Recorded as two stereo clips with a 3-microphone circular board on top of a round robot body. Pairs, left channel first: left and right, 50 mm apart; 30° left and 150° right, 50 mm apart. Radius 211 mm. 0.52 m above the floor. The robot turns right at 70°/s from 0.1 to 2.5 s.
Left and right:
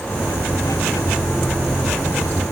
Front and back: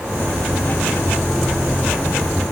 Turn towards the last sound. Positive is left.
No sound to turn to.